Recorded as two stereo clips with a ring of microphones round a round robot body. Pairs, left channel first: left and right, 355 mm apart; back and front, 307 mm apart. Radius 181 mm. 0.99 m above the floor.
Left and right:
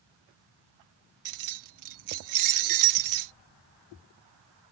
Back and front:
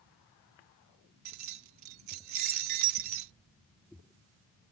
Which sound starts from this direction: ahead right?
Keys jangling, at 1.2 s.